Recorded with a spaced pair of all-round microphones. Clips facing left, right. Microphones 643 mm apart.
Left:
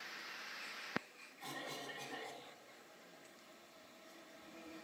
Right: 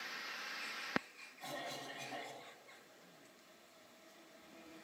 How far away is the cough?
About 2.0 m.